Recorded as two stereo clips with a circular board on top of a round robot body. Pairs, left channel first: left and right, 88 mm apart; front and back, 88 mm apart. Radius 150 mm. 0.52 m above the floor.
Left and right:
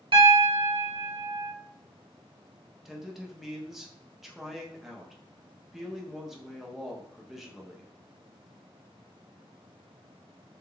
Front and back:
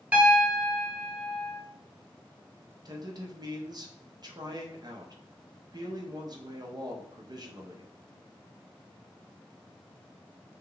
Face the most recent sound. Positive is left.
turn(degrees=-175)